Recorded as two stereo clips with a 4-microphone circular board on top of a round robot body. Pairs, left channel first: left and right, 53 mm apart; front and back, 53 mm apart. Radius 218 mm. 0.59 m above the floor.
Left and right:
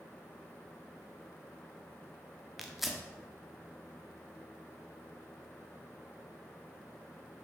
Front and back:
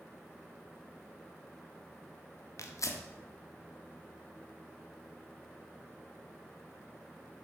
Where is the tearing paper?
5° right, 1.3 m.